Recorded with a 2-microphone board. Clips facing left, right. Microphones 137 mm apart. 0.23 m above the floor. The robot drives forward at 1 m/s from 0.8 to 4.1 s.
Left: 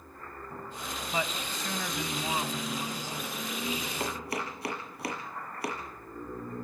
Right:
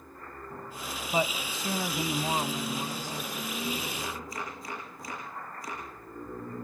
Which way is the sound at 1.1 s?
25° right (ahead or behind).